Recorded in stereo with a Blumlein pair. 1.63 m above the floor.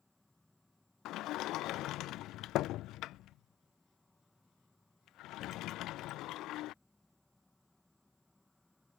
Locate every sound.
0.0 s an insect: 5° left
1.1 s a sliding door: 35° left